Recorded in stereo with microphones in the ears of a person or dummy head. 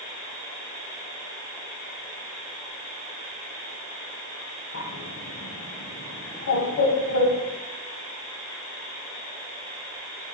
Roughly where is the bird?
Left.